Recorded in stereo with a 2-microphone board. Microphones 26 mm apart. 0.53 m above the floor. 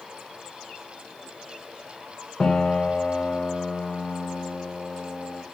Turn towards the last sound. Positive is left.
turn(degrees=25)  # may be behind; listen again after turning